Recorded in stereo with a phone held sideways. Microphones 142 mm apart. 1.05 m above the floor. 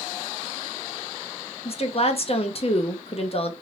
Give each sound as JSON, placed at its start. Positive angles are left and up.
{"t": 1.6, "sound": "a woman speaking", "side_deg": 45, "distance_m": 0.6}